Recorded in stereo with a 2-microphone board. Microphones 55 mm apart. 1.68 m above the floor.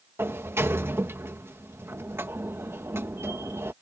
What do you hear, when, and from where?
0.2 s a sliding door: 50° right (ahead or behind)